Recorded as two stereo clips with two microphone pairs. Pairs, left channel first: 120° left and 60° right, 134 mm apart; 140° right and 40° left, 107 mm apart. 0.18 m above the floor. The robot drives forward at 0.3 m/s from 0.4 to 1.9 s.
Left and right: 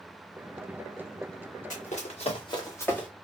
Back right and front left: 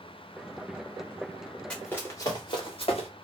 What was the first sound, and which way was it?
Running footsteps, 135° left.